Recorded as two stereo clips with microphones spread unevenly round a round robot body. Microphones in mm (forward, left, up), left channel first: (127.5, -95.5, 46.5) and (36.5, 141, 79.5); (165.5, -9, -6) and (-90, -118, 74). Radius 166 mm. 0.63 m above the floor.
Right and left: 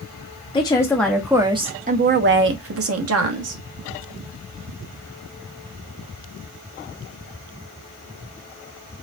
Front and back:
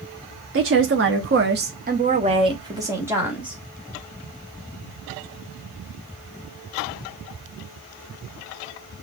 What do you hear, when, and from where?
0.5 s a woman speaking: 115° right, 0.9 m; by 3.6 s 105° left, 1.4 m